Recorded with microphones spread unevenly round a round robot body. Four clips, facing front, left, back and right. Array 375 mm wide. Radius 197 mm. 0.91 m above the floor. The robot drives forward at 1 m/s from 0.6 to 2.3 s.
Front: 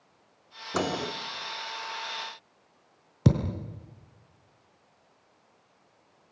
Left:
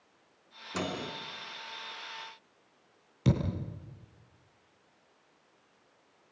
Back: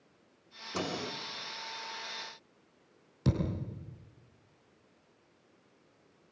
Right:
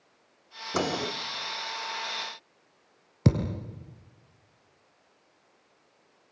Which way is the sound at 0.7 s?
35° right.